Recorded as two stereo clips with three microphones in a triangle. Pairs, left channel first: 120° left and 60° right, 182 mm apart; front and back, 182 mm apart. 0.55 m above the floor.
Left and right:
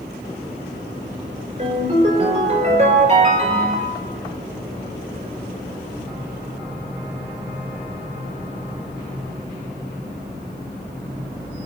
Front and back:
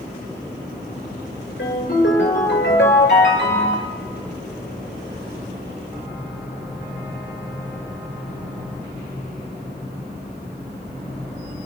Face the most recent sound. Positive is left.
turn(degrees=-10)